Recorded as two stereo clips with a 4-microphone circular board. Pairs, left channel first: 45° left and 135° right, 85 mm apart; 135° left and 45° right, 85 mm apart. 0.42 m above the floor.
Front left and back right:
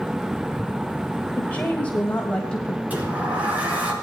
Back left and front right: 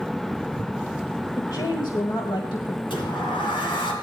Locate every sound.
1.4 s a woman speaking: 110° left, 1.4 m; by 2.8 s 125° left, 2 m
2.9 s a sliding door: 155° left, 4 m